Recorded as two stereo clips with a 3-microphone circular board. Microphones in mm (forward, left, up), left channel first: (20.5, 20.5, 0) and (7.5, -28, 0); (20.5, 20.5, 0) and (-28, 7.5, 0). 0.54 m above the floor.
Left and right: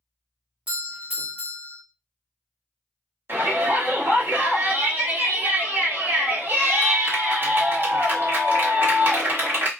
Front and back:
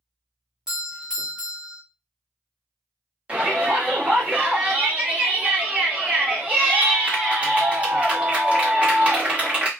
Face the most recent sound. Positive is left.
turn(degrees=-110)